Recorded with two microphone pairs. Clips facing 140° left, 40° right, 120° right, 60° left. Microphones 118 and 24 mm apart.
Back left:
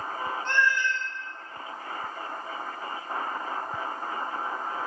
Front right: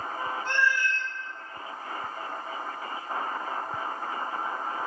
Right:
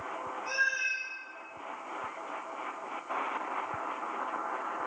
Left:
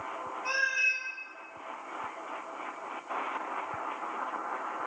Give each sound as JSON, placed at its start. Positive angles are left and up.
{"t": 0.5, "sound": "a cat meowing", "azimuth_deg": 40, "distance_m": 0.5}